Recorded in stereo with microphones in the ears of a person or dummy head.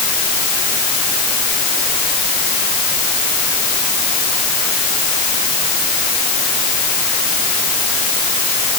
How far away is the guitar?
I don't hear a guitar.